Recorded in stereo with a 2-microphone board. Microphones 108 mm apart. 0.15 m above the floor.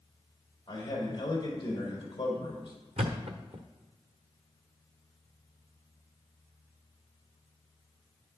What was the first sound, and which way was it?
A man speaking, 45° left (ahead or behind).